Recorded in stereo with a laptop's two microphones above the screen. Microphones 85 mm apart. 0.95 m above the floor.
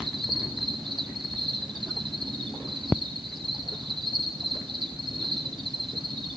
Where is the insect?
80° right, 4 m.